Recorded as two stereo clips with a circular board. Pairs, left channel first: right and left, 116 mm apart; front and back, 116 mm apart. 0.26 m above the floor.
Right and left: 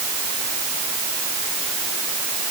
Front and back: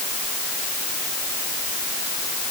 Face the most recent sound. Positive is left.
No sound to turn to.